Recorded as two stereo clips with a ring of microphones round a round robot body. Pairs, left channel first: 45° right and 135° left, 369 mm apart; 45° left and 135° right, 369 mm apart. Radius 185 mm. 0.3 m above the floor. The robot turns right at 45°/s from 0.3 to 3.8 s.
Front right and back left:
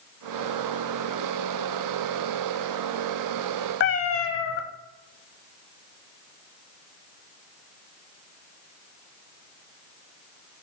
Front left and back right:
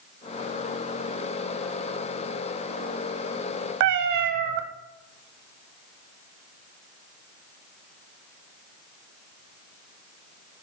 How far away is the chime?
I don't hear a chime.